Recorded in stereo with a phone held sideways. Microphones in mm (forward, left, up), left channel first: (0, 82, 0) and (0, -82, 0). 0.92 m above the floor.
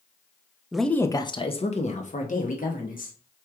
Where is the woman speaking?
5° right (ahead or behind), 0.5 m; by 3.1 s 60° left (ahead or behind), 1.6 m.